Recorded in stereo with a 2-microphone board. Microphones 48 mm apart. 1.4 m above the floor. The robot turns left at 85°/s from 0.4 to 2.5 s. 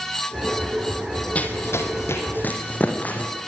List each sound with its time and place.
1.4 s running footsteps: 25° left (ahead or behind), 2.5 m; by 3.3 s 30° left (ahead or behind), 4 m